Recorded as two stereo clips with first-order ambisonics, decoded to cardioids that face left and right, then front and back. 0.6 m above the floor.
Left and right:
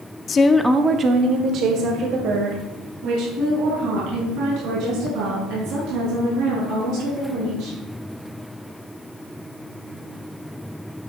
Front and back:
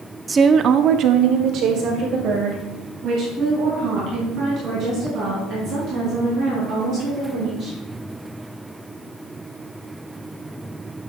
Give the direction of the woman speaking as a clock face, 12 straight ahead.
8 o'clock.